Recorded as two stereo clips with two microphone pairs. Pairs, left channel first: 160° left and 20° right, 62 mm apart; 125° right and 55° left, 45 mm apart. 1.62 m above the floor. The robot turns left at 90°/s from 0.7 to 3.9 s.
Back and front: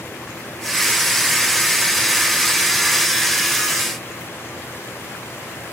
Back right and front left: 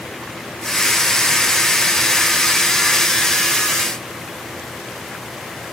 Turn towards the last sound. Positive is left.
No sound to turn to.